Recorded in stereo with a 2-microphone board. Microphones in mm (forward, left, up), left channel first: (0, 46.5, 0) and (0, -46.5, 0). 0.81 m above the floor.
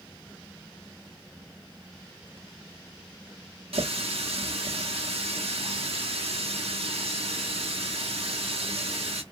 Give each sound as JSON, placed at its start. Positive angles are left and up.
{"t": 3.7, "sound": "a running tap", "side_deg": -85, "distance_m": 0.9}